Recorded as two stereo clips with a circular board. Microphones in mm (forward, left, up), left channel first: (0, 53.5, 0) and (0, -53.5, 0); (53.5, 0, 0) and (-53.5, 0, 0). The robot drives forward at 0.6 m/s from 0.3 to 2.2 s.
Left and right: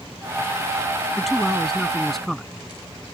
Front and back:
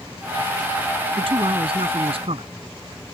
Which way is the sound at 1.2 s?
Straight behind.